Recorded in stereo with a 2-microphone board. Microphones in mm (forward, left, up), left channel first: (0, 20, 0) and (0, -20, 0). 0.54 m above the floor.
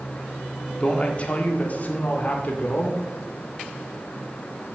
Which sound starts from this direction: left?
A man speaking, at 0.8 s.